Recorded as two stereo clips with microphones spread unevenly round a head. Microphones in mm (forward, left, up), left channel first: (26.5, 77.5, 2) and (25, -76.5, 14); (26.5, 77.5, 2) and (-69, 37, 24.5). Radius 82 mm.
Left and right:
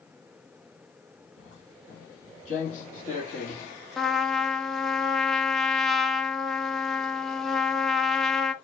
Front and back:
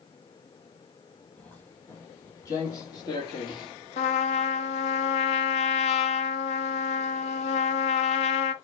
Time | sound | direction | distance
1.4 | footsteps | 105° left | 1.8 m
4.0 | a trumpet | straight ahead | 0.5 m